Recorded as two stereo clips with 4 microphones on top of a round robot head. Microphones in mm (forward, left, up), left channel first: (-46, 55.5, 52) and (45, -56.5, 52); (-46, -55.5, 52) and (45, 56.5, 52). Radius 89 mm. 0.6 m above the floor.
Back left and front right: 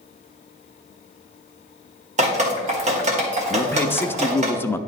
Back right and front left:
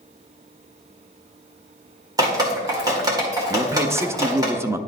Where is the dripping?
15° right, 1.9 m.